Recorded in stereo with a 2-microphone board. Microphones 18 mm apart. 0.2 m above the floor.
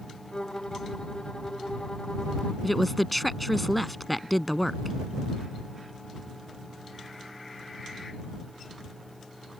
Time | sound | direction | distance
0.3 | a violin | 40° left (ahead or behind) | ?
2.6 | a woman speaking | centre (ahead or behind) | ?